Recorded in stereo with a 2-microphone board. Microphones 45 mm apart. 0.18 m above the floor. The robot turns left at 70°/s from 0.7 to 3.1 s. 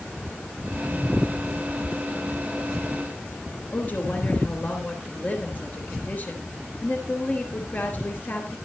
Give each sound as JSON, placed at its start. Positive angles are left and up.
{"t": 3.7, "sound": "a woman speaking", "side_deg": 45, "distance_m": 3.5}